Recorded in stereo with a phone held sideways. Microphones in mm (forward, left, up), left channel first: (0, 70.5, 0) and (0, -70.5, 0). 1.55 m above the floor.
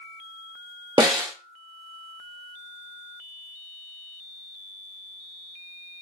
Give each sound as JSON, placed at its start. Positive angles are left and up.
{"t": 1.0, "sound": "a snare drum", "side_deg": -30, "distance_m": 0.9}